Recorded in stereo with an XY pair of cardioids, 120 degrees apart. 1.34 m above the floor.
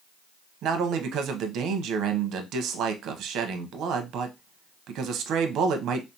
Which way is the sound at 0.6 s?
70° right.